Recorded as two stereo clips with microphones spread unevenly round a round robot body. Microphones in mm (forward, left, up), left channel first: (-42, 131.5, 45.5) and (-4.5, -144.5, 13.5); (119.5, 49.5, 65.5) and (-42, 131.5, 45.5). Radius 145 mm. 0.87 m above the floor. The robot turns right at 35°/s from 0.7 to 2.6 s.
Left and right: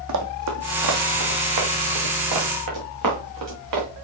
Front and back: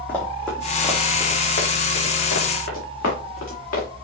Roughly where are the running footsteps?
Right.